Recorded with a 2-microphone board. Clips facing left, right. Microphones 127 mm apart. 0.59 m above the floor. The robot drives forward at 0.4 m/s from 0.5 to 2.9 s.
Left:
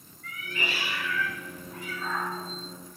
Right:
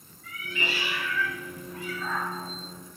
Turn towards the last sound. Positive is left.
turn(degrees=50)  # may be behind; listen again after turning